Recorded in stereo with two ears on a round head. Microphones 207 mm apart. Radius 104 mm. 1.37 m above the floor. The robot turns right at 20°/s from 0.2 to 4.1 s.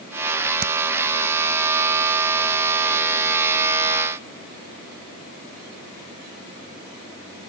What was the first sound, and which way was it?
Hammering, 45° right (ahead or behind).